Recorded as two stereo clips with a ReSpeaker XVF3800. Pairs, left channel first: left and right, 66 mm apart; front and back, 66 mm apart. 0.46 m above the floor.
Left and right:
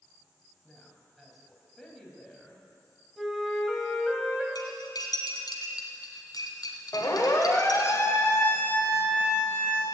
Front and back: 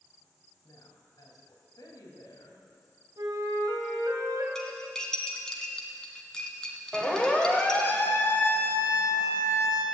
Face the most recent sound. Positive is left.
turn(degrees=20)